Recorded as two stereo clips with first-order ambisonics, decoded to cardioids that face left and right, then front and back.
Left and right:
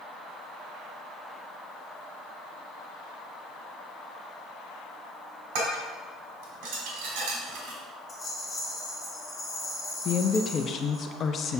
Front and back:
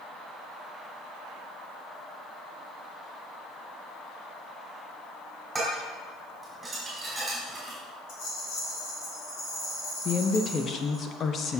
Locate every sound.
5.5 s dishes clattering: 95° right, 3 m
8.1 s a rattle: 10° left, 3 m
10.1 s a woman speaking: 45° left, 0.5 m